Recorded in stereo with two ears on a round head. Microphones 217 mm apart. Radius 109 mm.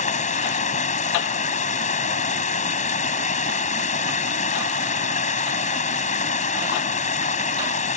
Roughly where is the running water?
Left.